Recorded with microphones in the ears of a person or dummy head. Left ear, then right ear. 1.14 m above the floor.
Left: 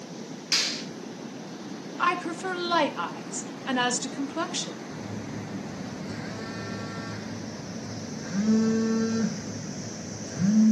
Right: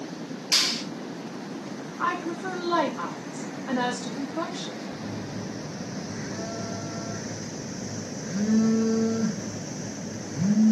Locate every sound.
0.5 s a clap: 5° left (ahead or behind), 5.5 m
2.0 s a woman speaking: 70° left (ahead or behind), 1.7 m
4.9 s a phone buzzing: 65° left (ahead or behind), 5 m